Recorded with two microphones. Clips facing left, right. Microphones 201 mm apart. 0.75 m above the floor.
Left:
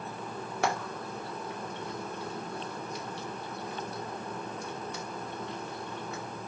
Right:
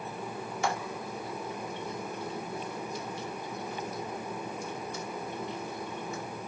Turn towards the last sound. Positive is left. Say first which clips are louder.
# left 2 dB
turn(degrees=65)  # may be behind; listen again after turning